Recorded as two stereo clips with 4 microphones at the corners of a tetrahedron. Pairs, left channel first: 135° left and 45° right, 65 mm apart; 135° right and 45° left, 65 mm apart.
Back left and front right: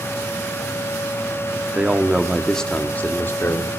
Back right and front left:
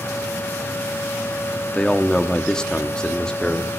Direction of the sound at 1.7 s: 65° right.